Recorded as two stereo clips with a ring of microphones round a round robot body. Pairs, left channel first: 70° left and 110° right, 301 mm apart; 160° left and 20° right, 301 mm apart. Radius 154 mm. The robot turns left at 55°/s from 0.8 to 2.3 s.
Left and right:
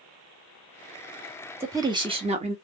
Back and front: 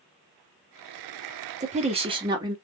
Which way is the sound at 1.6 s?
40° right.